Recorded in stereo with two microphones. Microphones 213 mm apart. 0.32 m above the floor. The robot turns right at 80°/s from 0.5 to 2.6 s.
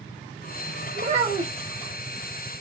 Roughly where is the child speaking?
Ahead right.